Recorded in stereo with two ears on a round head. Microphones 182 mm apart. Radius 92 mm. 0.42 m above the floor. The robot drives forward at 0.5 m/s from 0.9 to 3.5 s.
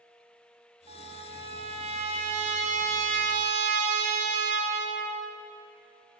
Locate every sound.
0.9 s a trumpet: 30° right (ahead or behind), 3 m; by 5.4 s 45° right (ahead or behind), 2 m